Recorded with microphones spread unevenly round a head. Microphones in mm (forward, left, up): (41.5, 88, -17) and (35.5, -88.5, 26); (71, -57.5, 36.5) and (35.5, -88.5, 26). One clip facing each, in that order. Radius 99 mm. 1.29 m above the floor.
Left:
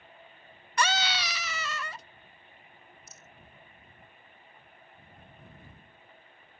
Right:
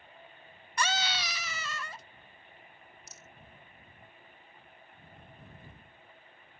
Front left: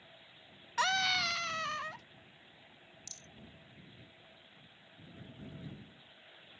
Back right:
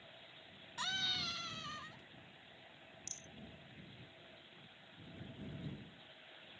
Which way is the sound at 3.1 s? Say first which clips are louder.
Even, even; 90° right.